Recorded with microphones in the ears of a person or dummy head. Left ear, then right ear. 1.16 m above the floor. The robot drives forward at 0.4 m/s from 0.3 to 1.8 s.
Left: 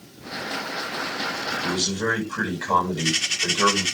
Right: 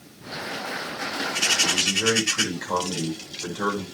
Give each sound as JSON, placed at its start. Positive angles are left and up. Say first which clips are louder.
{"t": 1.6, "sound": "a man speaking", "louder": "right 3 dB", "side_deg": 25, "distance_m": 10.0}